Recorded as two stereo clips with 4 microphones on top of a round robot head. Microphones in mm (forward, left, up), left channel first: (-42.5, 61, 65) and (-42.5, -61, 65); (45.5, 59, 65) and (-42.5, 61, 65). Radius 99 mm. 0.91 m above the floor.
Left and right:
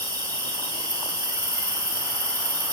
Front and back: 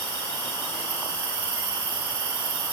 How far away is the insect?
About 3.5 m.